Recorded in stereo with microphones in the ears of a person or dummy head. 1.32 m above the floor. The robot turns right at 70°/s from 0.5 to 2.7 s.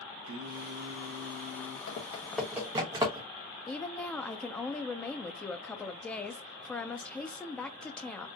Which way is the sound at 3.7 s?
15° left (ahead or behind).